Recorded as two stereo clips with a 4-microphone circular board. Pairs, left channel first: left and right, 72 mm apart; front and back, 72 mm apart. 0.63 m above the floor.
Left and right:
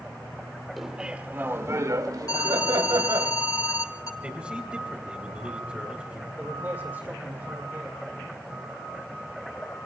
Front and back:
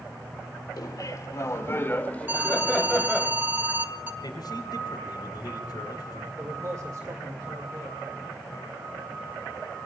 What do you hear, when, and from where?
0.8 s laughter: 5° right, 1.9 m; by 3.3 s 85° right, 3.5 m
2.3 s an alarm: 120° left, 1.5 m
4.2 s a man speaking: 15° right, 3.5 m
6.4 s a man speaking: 150° right, 1.9 m